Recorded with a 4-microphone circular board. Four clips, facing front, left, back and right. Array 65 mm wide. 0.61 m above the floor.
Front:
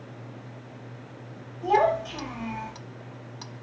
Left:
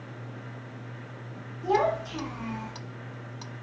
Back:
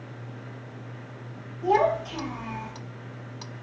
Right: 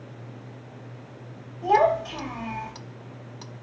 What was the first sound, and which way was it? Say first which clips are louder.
A child speaking: right 5 dB, even; 80° right.